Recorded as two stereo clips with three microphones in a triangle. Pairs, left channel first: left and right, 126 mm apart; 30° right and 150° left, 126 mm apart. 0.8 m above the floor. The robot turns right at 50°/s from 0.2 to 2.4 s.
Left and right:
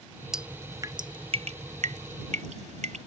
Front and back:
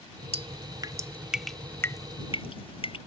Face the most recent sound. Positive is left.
turn(degrees=-75)